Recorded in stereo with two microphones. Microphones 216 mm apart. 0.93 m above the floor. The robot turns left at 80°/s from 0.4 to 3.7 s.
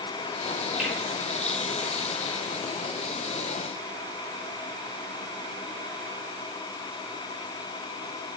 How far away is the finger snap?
About 4 m.